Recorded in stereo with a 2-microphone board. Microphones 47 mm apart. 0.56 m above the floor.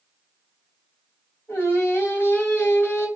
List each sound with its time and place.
1.5 s singing: 65° left (ahead or behind), 2.5 m